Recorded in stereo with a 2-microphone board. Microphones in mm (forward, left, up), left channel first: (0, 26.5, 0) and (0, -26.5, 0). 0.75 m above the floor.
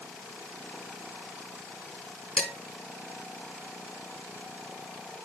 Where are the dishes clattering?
15° left (ahead or behind), 5.5 m.